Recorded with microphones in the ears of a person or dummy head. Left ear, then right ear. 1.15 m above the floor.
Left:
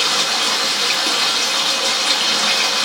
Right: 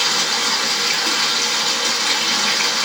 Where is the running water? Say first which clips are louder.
Left 1 dB; 15° left (ahead or behind), 1.4 m.